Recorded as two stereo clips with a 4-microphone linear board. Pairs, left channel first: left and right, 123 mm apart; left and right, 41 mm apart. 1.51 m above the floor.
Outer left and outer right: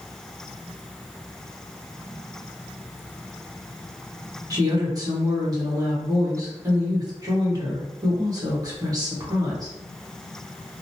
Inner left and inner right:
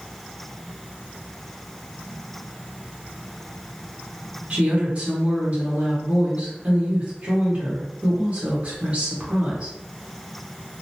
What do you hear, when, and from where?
4.5 s a woman speaking: 30° right (ahead or behind), 1.3 m